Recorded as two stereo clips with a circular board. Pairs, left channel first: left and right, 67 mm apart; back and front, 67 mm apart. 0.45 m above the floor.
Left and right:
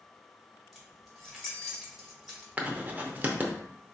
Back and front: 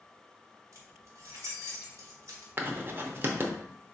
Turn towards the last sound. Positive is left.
turn(degrees=-40)